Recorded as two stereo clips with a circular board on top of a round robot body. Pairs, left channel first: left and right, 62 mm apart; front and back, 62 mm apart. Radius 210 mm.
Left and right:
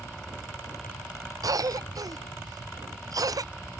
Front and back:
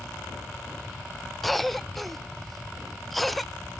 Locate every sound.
1.4 s a cough: 90° right